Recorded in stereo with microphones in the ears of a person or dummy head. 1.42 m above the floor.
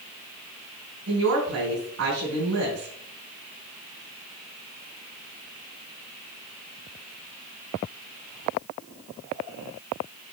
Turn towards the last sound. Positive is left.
turn(degrees=-80)